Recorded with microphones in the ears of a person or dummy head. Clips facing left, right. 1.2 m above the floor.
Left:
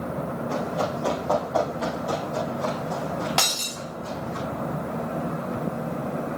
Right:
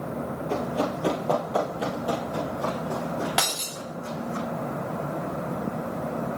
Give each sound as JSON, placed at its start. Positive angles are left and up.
{"t": 0.5, "sound": "running footsteps", "side_deg": -30, "distance_m": 1.6}
{"t": 3.4, "sound": "breaking glass", "side_deg": -5, "distance_m": 0.8}